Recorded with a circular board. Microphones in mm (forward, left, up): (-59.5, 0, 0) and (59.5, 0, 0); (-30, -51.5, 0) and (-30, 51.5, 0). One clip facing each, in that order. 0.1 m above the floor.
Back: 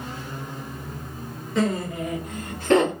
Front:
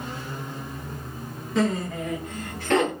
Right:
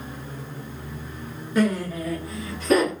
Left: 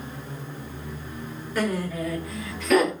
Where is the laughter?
90° right, 1.6 m; by 2.9 s 130° right, 2.5 m.